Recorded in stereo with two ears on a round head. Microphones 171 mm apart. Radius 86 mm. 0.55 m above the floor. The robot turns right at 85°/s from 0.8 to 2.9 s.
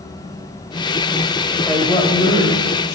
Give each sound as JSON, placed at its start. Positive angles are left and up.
{"t": 1.7, "sound": "a woman speaking", "azimuth_deg": 5, "distance_m": 3.0}